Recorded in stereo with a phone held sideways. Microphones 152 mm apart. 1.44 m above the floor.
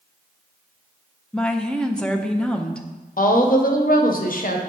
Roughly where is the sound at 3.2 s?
Left.